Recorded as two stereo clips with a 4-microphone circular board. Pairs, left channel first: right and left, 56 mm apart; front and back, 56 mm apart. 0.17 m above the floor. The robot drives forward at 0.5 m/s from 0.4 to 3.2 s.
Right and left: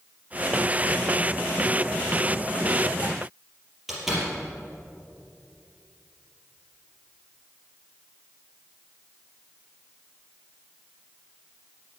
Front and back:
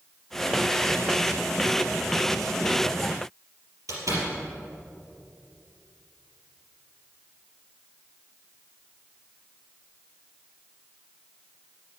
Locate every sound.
3.9 s a door slam: 175° left, 4 m